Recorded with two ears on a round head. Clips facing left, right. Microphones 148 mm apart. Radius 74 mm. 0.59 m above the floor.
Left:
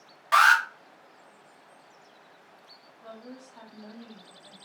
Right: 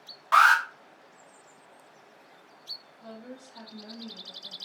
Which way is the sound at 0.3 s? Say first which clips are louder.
Even; 20° left (ahead or behind).